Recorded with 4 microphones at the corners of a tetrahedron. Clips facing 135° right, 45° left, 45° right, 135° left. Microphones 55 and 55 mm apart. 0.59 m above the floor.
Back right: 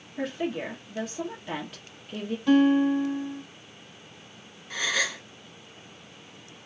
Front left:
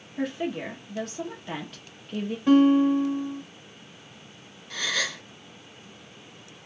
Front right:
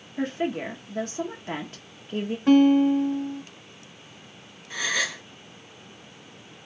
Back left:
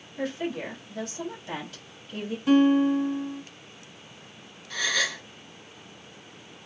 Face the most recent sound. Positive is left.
turn(degrees=-85)